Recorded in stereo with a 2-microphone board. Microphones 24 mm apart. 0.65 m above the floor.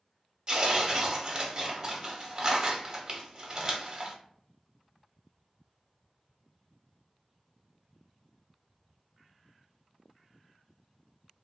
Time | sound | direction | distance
0.5 | tearing paper | 30° right (ahead or behind) | 0.5 m